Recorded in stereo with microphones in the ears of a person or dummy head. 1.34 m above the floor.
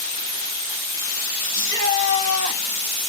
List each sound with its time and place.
1.5 s a shout: 20° left (ahead or behind), 6.5 m